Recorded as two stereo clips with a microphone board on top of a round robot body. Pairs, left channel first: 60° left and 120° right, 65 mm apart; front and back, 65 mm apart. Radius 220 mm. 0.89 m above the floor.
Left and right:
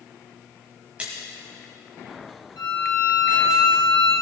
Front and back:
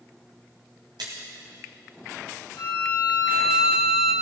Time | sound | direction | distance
1.0 | a splash | 165° left | 1.7 m
2.6 | a violin | 55° left | 2.5 m